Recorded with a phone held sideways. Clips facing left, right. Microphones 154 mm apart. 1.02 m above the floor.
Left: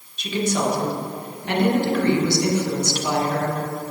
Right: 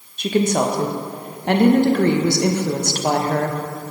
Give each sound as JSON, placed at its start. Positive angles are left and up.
{"t": 0.2, "sound": "a woman speaking", "side_deg": -50, "distance_m": 0.9}